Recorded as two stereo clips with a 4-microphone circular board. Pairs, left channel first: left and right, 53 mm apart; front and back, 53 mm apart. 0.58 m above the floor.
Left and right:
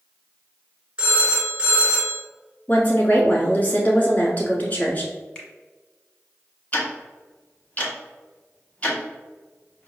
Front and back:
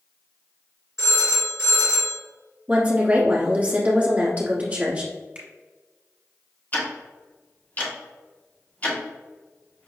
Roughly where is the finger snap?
Behind left.